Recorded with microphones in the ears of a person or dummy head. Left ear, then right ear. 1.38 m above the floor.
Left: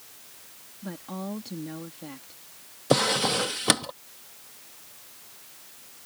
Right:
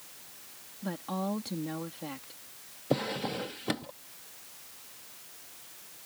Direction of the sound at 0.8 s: 25° right (ahead or behind).